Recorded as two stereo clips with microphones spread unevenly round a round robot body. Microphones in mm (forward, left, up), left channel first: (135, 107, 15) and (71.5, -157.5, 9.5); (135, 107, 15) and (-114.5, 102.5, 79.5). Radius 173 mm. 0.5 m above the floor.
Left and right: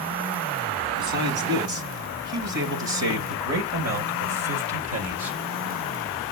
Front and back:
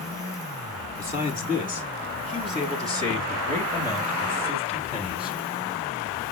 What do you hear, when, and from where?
1.0 s a man speaking: 100° right, 4.5 m; by 5.4 s 85° right, 2 m